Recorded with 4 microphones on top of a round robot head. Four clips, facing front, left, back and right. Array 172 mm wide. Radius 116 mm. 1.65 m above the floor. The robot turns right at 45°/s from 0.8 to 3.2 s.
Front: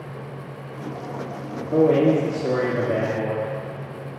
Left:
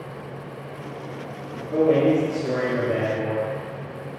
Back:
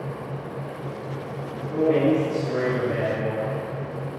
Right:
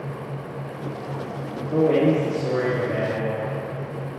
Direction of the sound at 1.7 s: 35° right.